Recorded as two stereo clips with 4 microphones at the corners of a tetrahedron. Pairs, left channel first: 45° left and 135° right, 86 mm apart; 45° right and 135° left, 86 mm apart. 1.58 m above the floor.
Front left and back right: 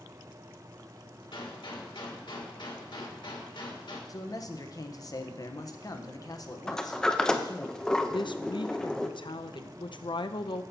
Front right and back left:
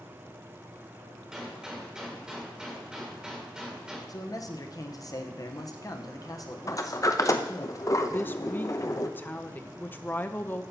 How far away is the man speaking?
About 1.1 m.